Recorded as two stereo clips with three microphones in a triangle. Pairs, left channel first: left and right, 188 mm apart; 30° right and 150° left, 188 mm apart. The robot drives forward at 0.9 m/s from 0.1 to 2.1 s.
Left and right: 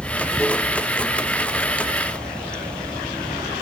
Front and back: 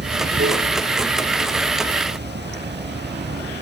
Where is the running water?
175° left.